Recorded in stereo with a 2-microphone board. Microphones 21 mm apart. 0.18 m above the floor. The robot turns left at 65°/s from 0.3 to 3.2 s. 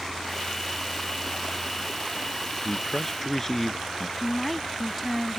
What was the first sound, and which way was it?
A man speaking, 160° right.